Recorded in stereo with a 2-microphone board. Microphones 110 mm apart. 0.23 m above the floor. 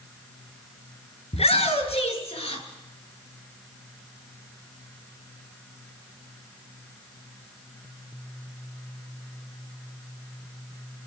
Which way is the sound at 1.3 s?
65° left (ahead or behind).